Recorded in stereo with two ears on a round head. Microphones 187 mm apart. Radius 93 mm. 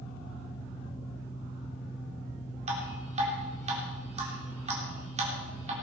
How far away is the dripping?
About 3.5 m.